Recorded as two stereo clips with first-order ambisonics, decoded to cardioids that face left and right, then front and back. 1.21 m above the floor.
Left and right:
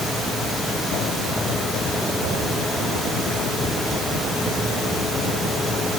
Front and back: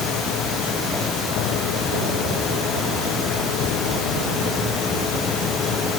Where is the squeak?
No squeak in this recording.